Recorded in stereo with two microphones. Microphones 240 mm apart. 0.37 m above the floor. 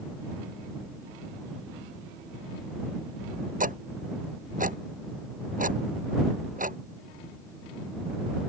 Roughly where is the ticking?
Right.